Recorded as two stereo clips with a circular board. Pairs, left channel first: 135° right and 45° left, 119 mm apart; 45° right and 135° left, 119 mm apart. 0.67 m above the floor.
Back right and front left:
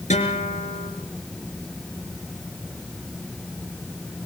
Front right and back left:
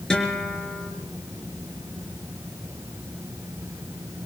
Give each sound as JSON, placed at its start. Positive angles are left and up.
{"t": 0.1, "sound": "a guitar", "azimuth_deg": -130, "distance_m": 4.5}